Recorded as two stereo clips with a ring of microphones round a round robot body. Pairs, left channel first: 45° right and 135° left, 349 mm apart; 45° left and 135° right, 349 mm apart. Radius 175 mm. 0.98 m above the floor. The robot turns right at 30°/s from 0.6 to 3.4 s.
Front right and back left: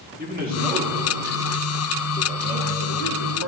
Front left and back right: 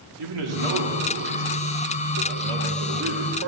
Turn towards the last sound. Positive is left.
turn(degrees=-75)